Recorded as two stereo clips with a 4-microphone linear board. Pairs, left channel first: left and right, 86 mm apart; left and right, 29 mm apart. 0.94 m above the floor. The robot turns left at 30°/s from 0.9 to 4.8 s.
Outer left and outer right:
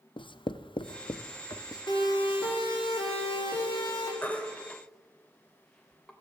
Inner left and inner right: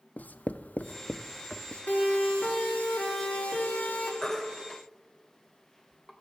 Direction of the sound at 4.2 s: 20° left (ahead or behind).